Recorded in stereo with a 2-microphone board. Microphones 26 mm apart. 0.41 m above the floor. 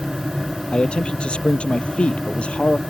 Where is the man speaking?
45° left (ahead or behind); by 2.8 s 50° left (ahead or behind).